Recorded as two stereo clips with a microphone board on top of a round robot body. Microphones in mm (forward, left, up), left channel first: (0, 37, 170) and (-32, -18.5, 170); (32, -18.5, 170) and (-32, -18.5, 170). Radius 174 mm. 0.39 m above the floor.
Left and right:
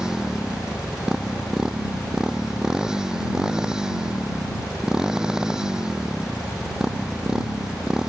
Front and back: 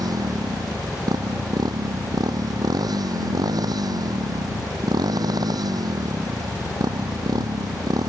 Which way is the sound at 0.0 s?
160° left.